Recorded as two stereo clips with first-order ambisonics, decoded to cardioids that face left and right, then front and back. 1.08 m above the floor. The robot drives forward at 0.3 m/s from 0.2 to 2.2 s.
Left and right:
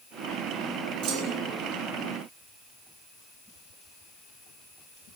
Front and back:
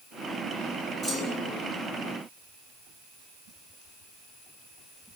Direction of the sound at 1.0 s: 105° right.